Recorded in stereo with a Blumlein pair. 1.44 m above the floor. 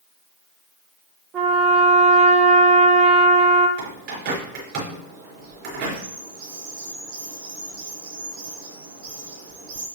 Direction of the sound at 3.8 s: 45° right.